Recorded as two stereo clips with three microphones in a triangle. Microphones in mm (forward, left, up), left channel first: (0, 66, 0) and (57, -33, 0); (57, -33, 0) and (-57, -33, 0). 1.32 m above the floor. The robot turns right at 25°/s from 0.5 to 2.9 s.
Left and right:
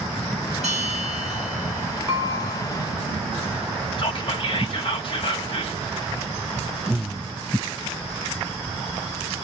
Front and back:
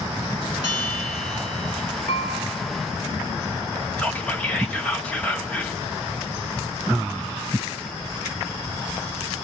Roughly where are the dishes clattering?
Ahead.